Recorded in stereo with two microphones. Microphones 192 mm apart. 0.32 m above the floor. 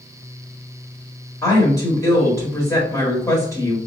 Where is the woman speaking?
15° left (ahead or behind), 1.1 m.